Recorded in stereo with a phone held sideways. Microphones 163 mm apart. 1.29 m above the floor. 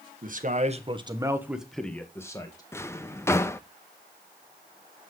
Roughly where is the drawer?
Centre.